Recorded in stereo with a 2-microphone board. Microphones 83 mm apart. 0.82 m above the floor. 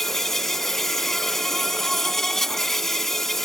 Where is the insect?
5° left (ahead or behind).